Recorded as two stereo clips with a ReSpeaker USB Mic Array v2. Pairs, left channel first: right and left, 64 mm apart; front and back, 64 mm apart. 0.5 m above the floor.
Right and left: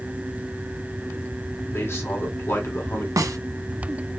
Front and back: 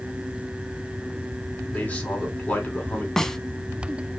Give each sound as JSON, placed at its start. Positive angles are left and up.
{"t": 1.7, "sound": "a man speaking", "azimuth_deg": -65, "distance_m": 1.8}
{"t": 3.2, "sound": "a snare drum", "azimuth_deg": 80, "distance_m": 0.5}